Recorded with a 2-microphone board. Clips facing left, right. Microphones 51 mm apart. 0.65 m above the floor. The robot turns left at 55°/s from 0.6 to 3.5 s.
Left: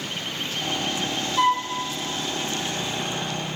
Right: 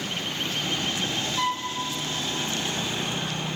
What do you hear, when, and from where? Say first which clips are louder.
1.4 s a flute: left 8 dB; 25° left (ahead or behind), 3 m; by 1.7 s 40° left (ahead or behind), 3 m